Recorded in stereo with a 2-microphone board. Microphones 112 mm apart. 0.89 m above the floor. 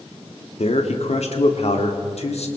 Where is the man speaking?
70° left (ahead or behind), 2.5 m.